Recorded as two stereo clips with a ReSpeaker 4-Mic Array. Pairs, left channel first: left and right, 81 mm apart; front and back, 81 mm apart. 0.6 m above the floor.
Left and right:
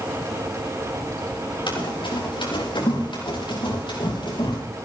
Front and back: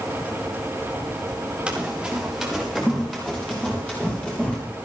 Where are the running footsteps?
100° left, 4.5 m; by 4.6 s 75° left, 6.5 m.